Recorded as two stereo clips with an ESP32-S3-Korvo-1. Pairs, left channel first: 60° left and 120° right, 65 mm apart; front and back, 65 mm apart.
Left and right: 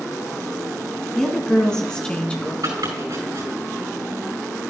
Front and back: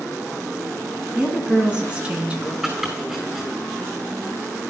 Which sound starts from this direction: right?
Chopping, at 2.6 s.